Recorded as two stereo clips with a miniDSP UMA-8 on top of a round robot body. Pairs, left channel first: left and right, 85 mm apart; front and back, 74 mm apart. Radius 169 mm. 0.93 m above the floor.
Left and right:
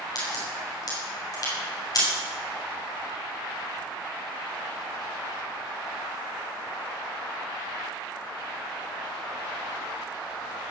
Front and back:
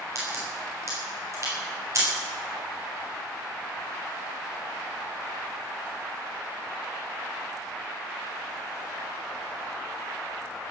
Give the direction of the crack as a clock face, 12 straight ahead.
8 o'clock.